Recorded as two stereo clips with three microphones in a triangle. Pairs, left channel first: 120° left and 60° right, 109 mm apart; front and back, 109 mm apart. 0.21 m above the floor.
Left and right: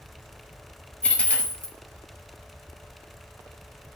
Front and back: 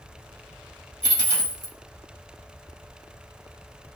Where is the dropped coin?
45° left, 0.9 m.